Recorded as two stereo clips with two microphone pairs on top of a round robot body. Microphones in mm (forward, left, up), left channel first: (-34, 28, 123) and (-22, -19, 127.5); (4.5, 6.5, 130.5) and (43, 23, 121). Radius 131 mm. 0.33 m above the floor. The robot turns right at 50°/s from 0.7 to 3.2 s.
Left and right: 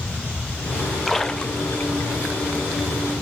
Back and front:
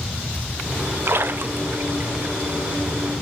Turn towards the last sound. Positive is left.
turn(degrees=130)